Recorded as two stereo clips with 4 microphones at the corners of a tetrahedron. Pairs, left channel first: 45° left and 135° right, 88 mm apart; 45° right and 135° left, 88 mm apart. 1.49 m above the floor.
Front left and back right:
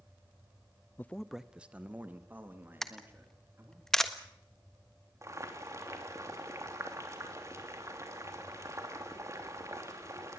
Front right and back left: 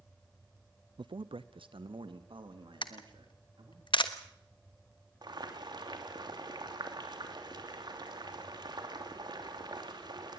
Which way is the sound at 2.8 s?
40° right.